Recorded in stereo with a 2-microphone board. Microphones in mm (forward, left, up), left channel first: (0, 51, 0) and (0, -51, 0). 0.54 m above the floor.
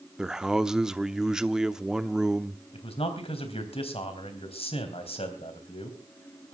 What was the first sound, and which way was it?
A man speaking, 5° right (ahead or behind).